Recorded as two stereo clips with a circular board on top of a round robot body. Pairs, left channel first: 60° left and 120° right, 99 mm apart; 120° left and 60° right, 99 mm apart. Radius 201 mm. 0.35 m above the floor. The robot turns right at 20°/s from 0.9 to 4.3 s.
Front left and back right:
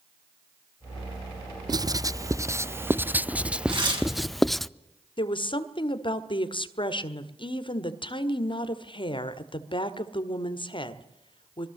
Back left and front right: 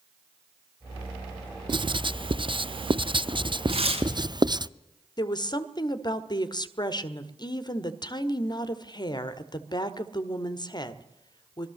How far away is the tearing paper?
About 5 m.